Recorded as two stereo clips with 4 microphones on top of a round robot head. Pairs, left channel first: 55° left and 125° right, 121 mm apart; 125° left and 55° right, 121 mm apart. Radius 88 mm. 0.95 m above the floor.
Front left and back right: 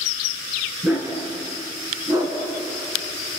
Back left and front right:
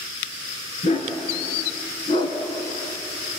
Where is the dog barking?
160° left, 4 m; by 2.4 s 175° left, 3 m.